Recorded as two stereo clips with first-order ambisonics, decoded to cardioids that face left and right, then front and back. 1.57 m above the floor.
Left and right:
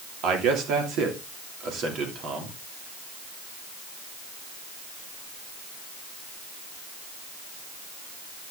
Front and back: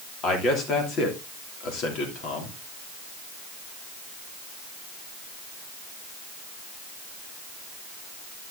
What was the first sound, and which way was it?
A man speaking, 60° right.